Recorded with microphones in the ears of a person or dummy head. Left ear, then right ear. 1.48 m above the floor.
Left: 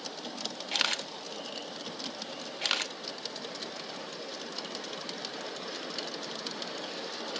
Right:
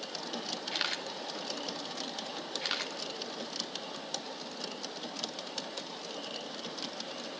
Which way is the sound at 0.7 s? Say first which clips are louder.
Left 6 dB; 15° left (ahead or behind).